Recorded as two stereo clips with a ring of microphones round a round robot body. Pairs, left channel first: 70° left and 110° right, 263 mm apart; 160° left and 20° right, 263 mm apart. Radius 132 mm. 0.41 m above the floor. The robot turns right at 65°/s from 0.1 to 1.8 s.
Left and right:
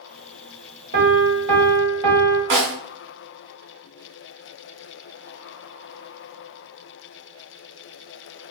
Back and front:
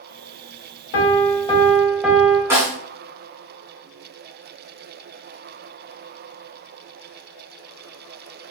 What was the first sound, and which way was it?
A piano, 165° right.